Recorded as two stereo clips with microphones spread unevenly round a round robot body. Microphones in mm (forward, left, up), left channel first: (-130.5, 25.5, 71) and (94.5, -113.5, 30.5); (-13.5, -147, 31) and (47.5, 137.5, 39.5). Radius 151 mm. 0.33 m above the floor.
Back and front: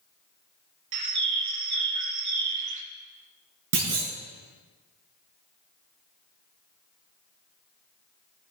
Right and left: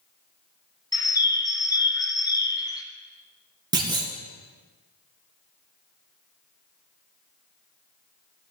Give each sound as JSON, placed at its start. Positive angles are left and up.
{"t": 0.9, "sound": "a bird", "azimuth_deg": -25, "distance_m": 1.2}
{"t": 3.7, "sound": "a clunk", "azimuth_deg": 0, "distance_m": 3.0}